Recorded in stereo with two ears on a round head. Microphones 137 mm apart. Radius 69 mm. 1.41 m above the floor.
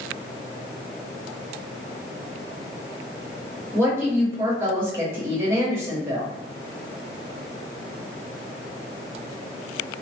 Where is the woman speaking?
15° right (ahead or behind), 1.1 m.